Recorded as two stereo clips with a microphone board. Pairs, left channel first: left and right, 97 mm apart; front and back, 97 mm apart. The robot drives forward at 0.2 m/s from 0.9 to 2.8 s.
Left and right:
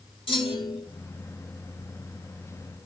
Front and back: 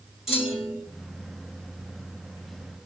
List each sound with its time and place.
0.3 s a clunk: 95° left, 1.7 m